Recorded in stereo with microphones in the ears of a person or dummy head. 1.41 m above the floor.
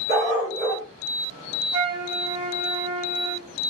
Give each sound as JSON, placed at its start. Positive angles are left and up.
{"t": 0.1, "sound": "a dog barking", "side_deg": -25, "distance_m": 1.0}
{"t": 1.7, "sound": "a flute", "side_deg": -70, "distance_m": 1.2}